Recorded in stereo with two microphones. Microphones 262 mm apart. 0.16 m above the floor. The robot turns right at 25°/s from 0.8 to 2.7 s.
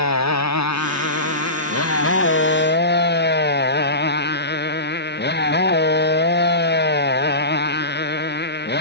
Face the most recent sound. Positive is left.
turn(degrees=140)